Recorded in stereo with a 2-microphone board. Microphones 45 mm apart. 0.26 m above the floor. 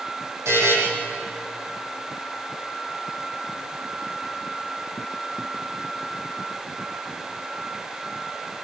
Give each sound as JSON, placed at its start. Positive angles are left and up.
{"t": 0.5, "sound": "a buzzer", "side_deg": -80, "distance_m": 9.0}